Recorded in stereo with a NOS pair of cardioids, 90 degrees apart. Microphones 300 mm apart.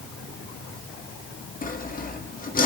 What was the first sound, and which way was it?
Sawing, 30° left.